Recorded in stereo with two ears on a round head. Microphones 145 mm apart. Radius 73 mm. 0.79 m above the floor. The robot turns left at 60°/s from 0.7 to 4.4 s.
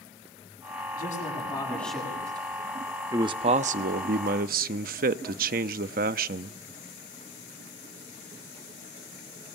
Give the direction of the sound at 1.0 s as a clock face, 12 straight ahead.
10 o'clock.